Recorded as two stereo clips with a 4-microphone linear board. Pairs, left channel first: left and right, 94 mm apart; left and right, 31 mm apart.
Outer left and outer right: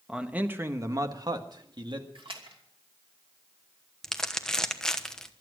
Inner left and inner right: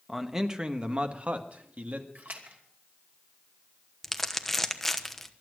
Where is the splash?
70° right (ahead or behind), 2.5 m.